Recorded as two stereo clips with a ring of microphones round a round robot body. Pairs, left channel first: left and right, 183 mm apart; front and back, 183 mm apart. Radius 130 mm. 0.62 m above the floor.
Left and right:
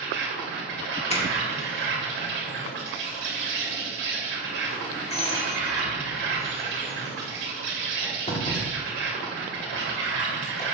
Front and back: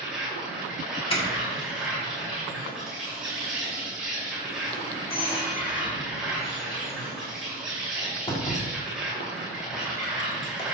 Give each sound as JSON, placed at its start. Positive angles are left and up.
{"t": 0.0, "sound": "an insect", "azimuth_deg": -95, "distance_m": 2.5}
{"t": 1.1, "sound": "a doorbell", "azimuth_deg": 50, "distance_m": 2.0}